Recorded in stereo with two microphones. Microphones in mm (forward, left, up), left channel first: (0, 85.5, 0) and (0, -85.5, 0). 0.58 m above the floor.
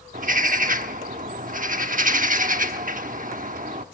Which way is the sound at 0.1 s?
50° right (ahead or behind).